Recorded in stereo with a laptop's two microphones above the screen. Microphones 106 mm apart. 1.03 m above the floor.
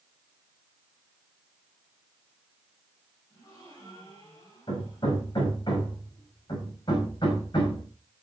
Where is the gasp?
35° left (ahead or behind), 6 m.